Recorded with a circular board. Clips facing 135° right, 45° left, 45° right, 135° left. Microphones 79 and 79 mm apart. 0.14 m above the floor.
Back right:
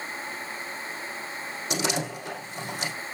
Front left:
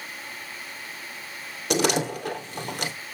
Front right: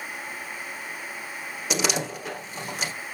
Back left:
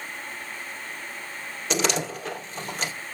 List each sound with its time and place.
1.7 s a door slam: 35° left, 2.5 m